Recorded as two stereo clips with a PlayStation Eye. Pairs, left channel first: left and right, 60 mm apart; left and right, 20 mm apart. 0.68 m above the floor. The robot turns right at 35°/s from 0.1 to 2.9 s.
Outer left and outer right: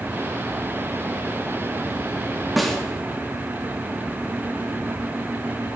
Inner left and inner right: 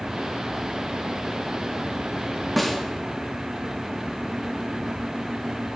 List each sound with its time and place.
2.6 s a snare drum: centre (ahead or behind), 0.9 m; by 2.8 s 5° left (ahead or behind), 0.9 m